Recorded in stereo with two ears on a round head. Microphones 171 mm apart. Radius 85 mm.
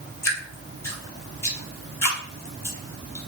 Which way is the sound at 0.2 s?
15° left (ahead or behind).